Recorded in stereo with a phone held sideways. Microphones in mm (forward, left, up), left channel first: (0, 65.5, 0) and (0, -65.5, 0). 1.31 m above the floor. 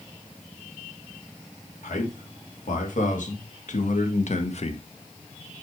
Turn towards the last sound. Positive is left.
turn(degrees=50)  # may be behind; listen again after turning